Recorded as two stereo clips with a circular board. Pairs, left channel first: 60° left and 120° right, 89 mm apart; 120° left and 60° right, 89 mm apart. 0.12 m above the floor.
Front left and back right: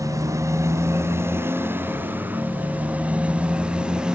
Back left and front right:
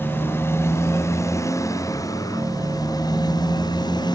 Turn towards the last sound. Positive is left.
turn(degrees=160)